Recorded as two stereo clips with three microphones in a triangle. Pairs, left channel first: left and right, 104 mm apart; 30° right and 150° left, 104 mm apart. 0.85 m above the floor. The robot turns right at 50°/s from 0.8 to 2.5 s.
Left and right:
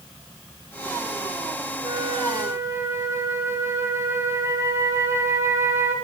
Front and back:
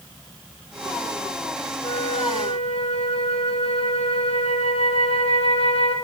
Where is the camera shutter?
No camera shutter in this recording.